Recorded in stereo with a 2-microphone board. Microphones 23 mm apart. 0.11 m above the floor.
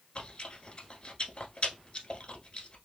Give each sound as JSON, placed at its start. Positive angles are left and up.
{"t": 0.1, "sound": "chewing", "side_deg": 40, "distance_m": 1.0}